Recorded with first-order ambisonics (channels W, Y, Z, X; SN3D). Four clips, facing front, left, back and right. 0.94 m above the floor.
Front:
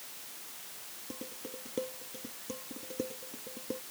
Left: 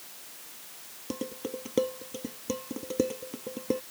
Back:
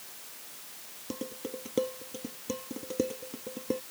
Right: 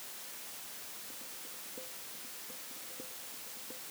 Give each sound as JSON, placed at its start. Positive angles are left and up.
{"t": 1.1, "sound": "dishes clattering", "azimuth_deg": 115}